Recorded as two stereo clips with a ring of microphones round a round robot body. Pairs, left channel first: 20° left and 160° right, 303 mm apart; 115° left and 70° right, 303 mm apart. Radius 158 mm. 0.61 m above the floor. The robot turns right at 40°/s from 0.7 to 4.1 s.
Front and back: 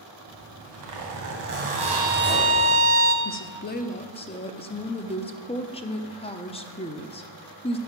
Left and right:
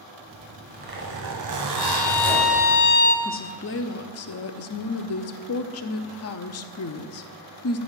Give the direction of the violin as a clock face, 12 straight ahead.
8 o'clock.